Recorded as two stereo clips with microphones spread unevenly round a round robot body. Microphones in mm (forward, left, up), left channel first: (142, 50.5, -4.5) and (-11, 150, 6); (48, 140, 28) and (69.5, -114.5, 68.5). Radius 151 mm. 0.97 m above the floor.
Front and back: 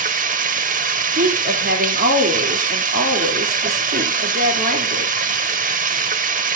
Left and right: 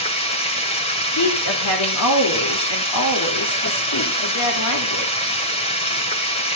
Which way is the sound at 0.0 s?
170° left.